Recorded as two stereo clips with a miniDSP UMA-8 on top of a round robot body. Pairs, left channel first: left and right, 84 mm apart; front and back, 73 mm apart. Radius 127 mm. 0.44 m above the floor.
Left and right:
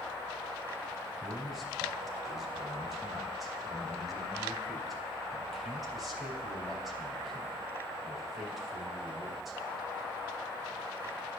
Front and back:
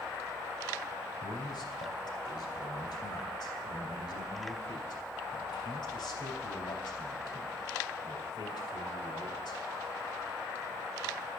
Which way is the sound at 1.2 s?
Straight ahead.